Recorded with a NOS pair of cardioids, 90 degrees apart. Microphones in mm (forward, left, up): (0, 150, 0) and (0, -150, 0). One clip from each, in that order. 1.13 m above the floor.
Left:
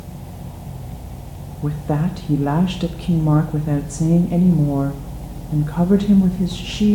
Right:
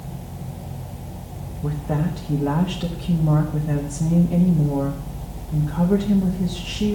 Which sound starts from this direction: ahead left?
A woman speaking, at 1.6 s.